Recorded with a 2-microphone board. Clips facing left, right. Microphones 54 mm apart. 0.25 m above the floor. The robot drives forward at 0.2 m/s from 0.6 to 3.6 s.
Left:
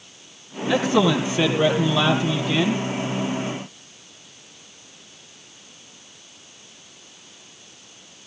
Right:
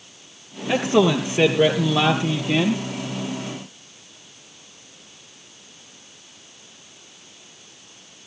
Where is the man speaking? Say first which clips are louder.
Right 1 dB; 60° right (ahead or behind), 5 m; by 2.8 s 55° right (ahead or behind), 5 m.